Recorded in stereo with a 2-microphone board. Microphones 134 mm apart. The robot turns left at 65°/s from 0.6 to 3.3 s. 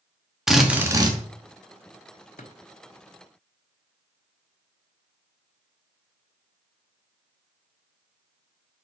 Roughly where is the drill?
Ahead.